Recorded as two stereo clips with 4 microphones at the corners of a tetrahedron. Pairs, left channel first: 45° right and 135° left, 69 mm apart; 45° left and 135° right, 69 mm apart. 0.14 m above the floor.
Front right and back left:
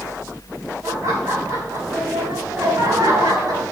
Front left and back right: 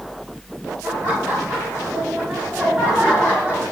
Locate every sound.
0.8 s laughter: straight behind, 4.5 m; by 3.6 s 155° left, 5.5 m